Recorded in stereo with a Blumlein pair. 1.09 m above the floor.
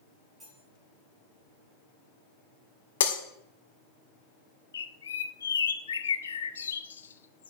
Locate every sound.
0.4 s cutlery clinking: 15° right, 5.5 m
3.0 s breaking glass: 60° left, 1.4 m
4.7 s a bird: 70° left, 0.7 m